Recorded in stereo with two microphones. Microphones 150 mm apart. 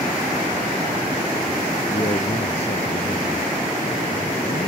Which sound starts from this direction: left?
A man speaking, at 1.9 s.